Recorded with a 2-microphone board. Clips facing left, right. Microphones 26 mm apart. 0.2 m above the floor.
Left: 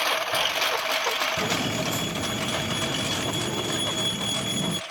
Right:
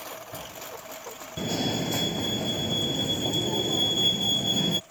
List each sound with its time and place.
0.0 s a lawn mower: 70° left (ahead or behind); by 4.9 s 85° left
1.4 s a fire alarm: 25° right (ahead or behind)